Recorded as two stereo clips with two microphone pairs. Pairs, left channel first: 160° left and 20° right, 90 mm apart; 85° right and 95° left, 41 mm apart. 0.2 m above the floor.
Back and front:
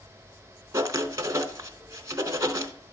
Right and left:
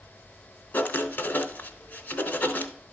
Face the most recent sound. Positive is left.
turn(degrees=-65)